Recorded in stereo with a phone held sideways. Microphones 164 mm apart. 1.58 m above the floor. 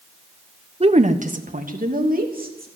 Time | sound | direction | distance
0.8 | a woman speaking | 35° right (ahead or behind) | 0.9 m